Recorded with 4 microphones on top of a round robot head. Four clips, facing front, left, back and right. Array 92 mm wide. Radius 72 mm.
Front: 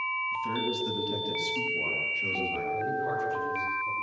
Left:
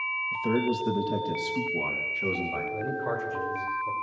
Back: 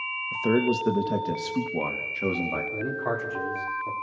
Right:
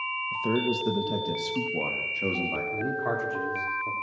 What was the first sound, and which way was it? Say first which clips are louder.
A man speaking: even, back 11 dB; 175° right.